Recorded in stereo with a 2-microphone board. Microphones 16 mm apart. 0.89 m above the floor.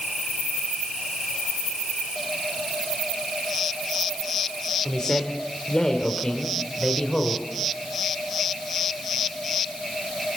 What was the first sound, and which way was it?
A man speaking, 45° left (ahead or behind).